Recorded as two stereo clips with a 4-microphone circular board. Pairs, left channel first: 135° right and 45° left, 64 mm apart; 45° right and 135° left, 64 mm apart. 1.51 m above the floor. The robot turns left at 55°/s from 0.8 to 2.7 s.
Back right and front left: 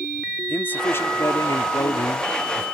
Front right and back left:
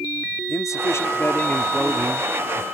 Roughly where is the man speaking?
Right.